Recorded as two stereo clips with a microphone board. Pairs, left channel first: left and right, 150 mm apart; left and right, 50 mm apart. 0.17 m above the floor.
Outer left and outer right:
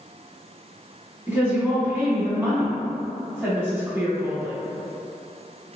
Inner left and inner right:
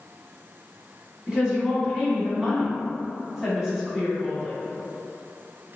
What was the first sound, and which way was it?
A woman speaking, 15° right (ahead or behind).